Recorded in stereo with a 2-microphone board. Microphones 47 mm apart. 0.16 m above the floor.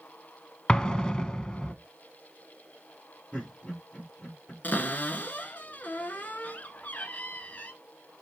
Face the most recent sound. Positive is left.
turn(degrees=40)  # may be behind; listen again after turning